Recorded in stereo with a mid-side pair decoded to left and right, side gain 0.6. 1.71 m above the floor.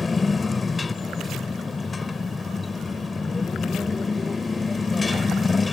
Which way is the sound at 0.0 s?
20° left.